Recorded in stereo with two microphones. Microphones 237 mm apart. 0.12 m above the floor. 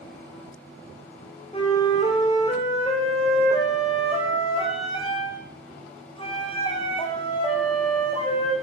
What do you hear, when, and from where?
1.5 s a flute: 20° left (ahead or behind), 1.8 m